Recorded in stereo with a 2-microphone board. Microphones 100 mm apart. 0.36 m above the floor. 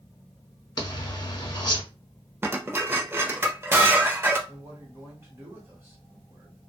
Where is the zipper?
45° left (ahead or behind), 0.8 m.